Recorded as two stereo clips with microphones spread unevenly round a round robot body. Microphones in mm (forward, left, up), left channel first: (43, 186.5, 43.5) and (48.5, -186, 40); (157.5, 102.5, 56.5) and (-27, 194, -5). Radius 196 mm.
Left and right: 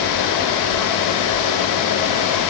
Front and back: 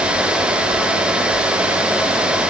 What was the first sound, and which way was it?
Only background noise.